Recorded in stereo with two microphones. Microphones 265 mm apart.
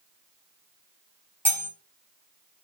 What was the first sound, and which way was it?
Cutlery clinking, 20° left (ahead or behind).